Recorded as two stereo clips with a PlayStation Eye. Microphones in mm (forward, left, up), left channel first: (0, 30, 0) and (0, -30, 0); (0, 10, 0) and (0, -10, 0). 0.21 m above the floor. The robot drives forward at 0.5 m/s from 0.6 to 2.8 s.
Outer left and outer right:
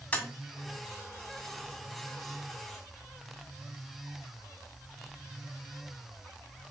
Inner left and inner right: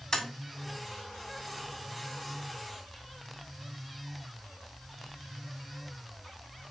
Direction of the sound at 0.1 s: 20° left (ahead or behind).